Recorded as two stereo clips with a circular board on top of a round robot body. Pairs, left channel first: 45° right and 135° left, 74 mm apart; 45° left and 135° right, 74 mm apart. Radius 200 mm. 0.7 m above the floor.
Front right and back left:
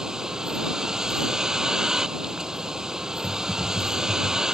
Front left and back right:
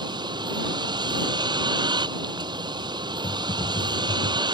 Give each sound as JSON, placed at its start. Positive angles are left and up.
{"t": 0.0, "sound": "a vehicle", "azimuth_deg": -145}
{"t": 3.2, "sound": "typing on a keyboard", "azimuth_deg": 50}